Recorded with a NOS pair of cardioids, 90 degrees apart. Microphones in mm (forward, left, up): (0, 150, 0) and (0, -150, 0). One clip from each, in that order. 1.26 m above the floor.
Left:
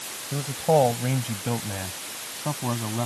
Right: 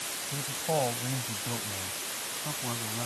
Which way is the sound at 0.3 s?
65° left.